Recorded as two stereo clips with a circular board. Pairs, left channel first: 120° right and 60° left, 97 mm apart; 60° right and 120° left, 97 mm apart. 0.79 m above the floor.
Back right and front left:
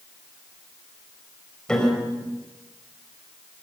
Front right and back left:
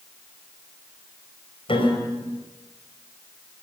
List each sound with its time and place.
1.7 s a piano: 40° right, 5 m